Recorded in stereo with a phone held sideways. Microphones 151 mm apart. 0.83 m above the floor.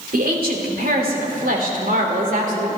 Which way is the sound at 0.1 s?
75° right (ahead or behind).